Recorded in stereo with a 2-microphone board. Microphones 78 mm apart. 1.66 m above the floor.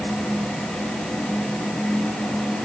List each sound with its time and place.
Only background noise.